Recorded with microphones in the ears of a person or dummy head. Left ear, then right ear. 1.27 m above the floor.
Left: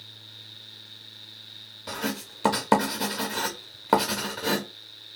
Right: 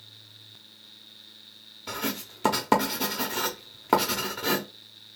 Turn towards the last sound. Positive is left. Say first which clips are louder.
# even
turn(degrees=5)  # may be behind; listen again after turning